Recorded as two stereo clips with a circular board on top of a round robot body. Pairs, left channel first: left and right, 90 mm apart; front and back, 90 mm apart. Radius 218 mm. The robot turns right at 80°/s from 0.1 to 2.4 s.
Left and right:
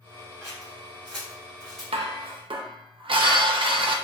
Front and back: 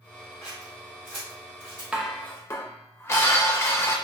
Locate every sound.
0.4 s scissors: 25° left, 0.8 m; by 1.8 s 140° left, 0.8 m
1.9 s dishes clattering: 100° right, 0.6 m; by 4.0 s 60° right, 0.6 m